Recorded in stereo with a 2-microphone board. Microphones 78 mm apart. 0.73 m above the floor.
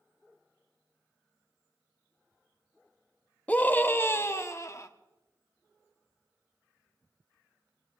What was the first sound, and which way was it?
A scream, 20° left (ahead or behind).